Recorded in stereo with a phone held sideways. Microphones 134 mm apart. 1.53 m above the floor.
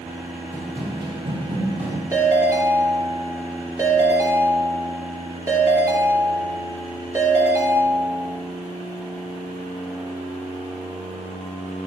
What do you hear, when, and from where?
0.5 s running footsteps: 30° right (ahead or behind), 1.8 m; by 2.0 s 55° right (ahead or behind), 2.5 m
2.1 s a ringtone: 25° right (ahead or behind), 3 m